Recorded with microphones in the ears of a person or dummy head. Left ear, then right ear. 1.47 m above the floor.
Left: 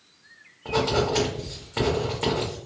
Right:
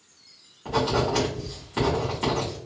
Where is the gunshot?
No gunshot in this recording.